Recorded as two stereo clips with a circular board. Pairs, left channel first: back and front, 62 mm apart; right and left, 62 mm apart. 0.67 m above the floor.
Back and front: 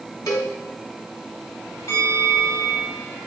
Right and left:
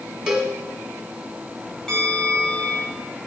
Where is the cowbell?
170° left, 1.5 m.